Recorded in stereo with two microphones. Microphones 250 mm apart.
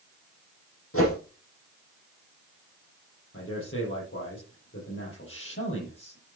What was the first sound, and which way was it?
A whoosh, 60° left (ahead or behind).